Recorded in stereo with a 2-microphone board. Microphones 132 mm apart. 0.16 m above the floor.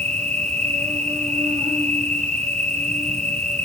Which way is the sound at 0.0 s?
60° right (ahead or behind).